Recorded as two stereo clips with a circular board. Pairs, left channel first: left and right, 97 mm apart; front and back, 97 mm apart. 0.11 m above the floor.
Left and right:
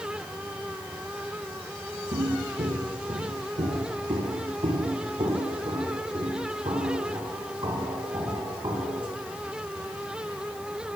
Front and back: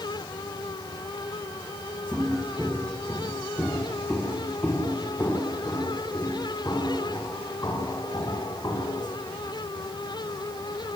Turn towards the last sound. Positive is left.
turn(degrees=-50)